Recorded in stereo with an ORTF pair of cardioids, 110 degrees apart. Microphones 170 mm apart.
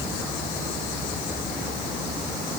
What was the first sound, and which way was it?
Only background noise.